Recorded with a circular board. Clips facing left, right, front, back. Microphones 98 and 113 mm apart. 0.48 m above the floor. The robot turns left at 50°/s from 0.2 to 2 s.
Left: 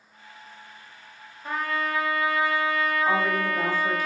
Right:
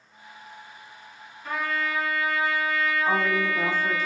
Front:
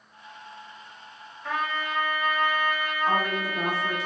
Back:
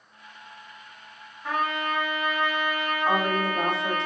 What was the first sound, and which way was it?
A trumpet, 110° left.